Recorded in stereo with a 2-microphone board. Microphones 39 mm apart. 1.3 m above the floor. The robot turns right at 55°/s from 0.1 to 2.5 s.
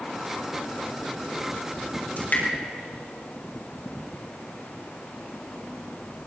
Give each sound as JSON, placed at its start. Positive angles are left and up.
{"t": 2.2, "sound": "dripping", "side_deg": 50, "distance_m": 4.5}